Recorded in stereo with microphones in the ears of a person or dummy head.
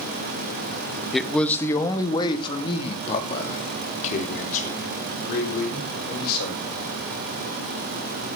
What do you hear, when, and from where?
1.1 s a man speaking: centre (ahead or behind), 1.5 m; by 6.6 s 50° left (ahead or behind), 4.5 m